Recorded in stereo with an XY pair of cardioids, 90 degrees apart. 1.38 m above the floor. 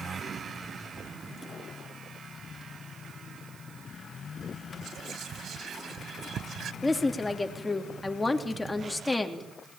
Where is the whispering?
65° right, 0.9 m.